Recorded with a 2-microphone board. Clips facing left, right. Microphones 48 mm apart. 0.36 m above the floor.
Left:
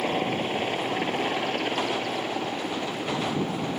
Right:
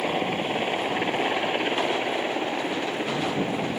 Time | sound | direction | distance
0.0 | a helicopter | 10° right (ahead or behind) | ?